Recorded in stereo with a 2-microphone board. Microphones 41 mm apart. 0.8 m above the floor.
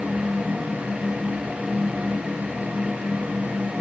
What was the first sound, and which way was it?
Only background noise.